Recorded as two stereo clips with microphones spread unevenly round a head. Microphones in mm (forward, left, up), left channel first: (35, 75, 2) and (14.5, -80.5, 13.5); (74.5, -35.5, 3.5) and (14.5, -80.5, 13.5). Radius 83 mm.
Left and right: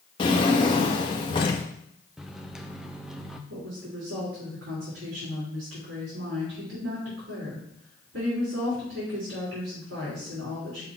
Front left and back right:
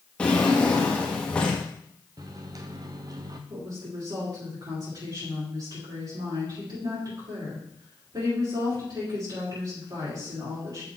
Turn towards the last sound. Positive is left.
turn(degrees=-115)